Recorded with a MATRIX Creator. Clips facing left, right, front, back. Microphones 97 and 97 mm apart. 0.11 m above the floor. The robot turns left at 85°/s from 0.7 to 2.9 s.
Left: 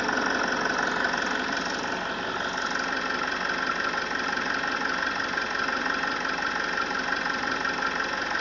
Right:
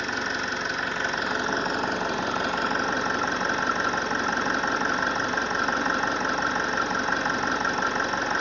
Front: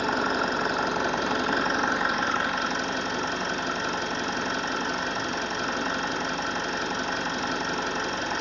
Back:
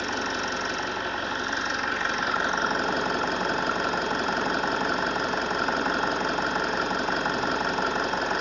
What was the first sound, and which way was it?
An engine running, 35° left.